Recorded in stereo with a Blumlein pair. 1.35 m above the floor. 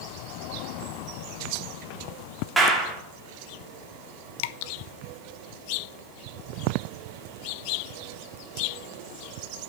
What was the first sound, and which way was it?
A clap, 10° right.